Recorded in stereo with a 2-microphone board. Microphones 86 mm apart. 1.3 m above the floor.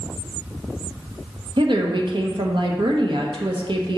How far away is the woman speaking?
About 0.9 m.